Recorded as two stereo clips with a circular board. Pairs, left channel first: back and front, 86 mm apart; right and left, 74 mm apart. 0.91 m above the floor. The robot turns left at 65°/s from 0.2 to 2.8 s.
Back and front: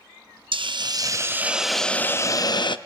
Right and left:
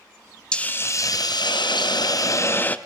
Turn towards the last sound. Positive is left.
turn(degrees=-160)